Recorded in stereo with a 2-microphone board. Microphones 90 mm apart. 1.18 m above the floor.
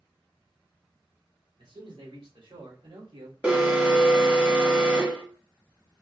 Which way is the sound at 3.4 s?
15° right (ahead or behind).